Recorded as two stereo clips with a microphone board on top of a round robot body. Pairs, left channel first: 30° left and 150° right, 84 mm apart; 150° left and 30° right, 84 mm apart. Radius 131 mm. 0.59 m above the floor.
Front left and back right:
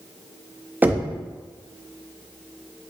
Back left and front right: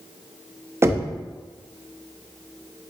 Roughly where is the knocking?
Right.